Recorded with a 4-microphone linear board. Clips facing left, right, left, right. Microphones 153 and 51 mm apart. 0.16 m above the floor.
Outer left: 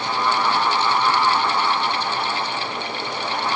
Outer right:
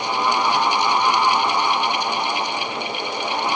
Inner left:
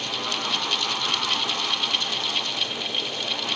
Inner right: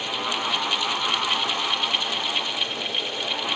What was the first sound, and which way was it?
Only background noise.